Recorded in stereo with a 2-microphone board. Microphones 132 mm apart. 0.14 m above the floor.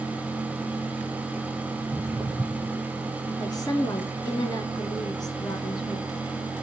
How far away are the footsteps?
About 4.5 m.